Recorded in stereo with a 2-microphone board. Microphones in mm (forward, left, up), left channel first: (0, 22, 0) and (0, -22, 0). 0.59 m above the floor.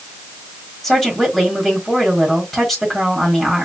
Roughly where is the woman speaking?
Centre.